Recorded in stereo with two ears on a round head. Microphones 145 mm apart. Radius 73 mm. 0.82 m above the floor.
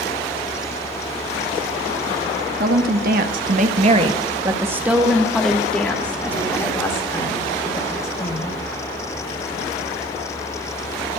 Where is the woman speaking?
60° right (ahead or behind), 1.2 m; by 8.6 s 20° left (ahead or behind), 3.5 m.